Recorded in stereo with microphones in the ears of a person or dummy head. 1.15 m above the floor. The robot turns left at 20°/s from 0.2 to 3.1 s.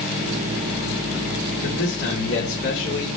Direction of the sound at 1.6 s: 90° left.